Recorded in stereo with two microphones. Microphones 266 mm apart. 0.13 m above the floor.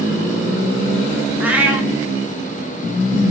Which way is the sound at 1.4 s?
5° right (ahead or behind).